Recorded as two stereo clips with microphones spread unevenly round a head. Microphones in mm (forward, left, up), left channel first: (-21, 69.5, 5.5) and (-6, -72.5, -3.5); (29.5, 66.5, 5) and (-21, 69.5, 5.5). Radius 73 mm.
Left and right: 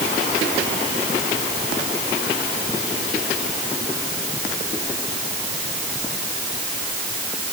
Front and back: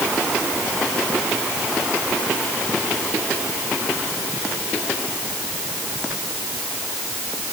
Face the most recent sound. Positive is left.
No sound to turn to.